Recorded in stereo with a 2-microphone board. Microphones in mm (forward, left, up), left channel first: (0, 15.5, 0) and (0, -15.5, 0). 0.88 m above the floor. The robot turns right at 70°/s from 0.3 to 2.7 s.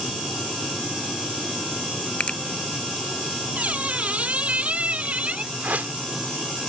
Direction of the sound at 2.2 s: 45° left (ahead or behind).